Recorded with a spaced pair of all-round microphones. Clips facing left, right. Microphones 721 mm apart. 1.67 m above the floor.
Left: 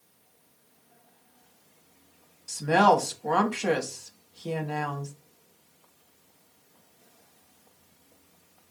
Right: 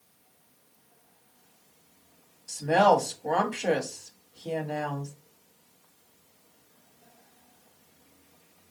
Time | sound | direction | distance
2.5 | a woman speaking | 40° left (ahead or behind) | 0.6 m